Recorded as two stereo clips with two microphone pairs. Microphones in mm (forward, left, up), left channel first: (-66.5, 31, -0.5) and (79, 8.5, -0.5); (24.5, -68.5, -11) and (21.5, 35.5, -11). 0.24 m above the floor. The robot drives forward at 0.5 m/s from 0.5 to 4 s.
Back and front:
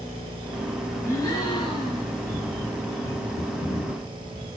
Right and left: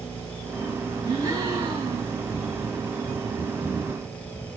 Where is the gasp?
110° left, 1.5 m; by 2.1 s 135° left, 1.7 m.